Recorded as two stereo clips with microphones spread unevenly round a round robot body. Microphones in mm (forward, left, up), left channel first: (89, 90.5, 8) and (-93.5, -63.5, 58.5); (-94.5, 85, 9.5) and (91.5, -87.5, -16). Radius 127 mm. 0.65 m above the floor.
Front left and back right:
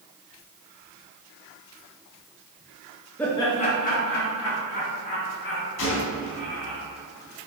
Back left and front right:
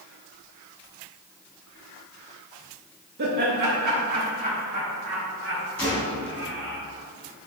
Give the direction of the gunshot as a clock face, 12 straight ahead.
10 o'clock.